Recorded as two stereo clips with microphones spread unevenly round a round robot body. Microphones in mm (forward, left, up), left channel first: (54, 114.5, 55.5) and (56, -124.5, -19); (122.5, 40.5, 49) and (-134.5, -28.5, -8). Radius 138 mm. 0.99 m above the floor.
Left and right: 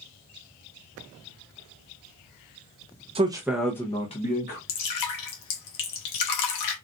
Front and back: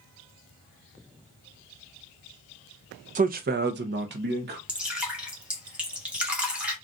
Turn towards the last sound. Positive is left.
turn(degrees=110)